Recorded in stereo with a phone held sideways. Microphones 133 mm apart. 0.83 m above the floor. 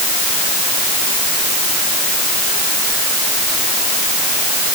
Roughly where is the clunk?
I don't hear a clunk.